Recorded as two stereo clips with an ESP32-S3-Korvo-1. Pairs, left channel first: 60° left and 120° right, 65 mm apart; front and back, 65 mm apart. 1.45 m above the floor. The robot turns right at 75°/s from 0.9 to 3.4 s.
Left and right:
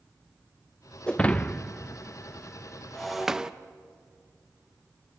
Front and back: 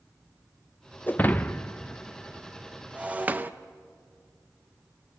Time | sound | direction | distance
1.1 | breaking glass | 5° right | 0.6 m